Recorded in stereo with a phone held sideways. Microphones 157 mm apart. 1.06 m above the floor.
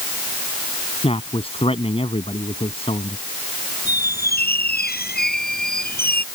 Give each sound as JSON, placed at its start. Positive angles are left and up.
{"t": 1.0, "sound": "a man speaking", "side_deg": 35}
{"t": 3.9, "sound": "a squeak", "side_deg": 80}